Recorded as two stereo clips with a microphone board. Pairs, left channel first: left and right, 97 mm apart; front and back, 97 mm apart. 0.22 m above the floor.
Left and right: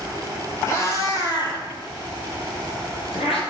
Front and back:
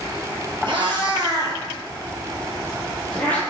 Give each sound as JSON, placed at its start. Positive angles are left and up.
{"t": 0.7, "sound": "a cat meowing", "azimuth_deg": 150, "distance_m": 1.0}